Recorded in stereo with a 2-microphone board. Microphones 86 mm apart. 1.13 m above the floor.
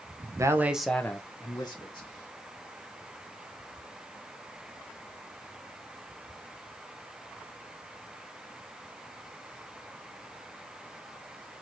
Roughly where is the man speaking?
Right.